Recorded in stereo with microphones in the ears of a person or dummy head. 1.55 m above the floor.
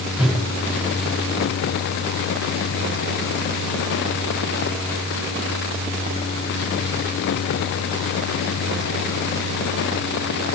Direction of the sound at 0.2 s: 5° right (ahead or behind).